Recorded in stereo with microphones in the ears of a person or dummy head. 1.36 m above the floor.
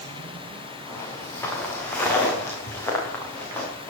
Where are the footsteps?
20° left (ahead or behind), 3.5 m; by 3.9 s 15° left (ahead or behind), 6.5 m.